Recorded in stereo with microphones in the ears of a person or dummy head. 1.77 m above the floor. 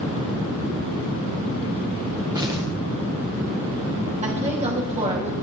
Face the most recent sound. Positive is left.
turn(degrees=-35)  # may be behind; listen again after turning